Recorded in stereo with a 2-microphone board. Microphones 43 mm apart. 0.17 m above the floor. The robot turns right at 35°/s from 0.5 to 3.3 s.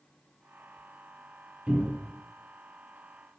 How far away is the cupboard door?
About 0.9 m.